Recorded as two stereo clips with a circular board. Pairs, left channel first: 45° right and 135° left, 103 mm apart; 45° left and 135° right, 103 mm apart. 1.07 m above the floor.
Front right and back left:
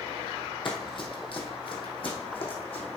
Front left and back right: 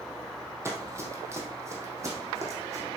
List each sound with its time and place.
0.7 s running footsteps: 75° right, 1.9 m